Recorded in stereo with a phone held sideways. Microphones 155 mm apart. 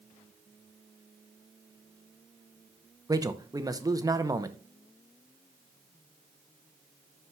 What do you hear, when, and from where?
3.1 s a man speaking: 20° right (ahead or behind), 0.7 m